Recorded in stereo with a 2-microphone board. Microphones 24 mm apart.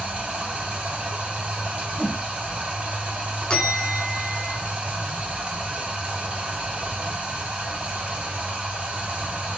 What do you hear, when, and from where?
0.0 s running water: 60° right (ahead or behind), 1.4 m
2.0 s a whoosh: 80° left, 0.8 m
3.5 s a bell: 35° left (ahead or behind), 0.9 m